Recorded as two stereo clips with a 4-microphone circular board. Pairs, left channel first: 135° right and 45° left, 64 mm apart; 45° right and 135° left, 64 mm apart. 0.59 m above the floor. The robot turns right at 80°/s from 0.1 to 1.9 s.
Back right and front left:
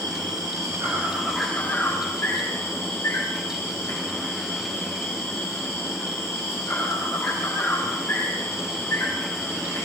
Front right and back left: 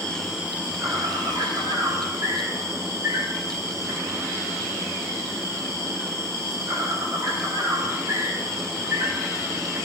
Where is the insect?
35° left, 10 m; by 9.9 s 175° left, 10 m.